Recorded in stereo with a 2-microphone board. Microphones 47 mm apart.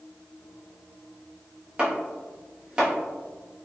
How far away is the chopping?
About 1.0 m.